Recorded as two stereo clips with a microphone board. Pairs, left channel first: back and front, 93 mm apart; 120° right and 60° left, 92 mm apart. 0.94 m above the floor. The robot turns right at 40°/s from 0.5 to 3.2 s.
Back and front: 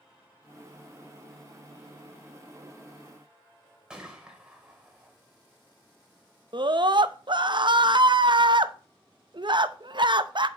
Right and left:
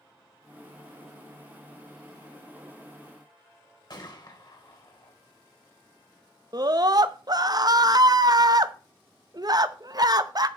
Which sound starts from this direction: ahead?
A scream, at 6.5 s.